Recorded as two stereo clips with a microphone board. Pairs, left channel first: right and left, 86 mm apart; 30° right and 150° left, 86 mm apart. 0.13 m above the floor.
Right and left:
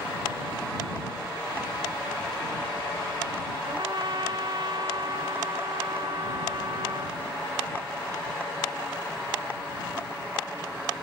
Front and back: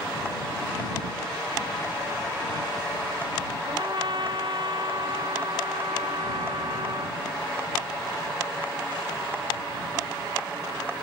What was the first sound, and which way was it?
A trumpet, 125° left.